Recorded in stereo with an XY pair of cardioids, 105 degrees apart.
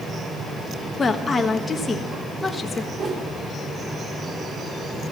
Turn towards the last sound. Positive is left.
turn(degrees=-35)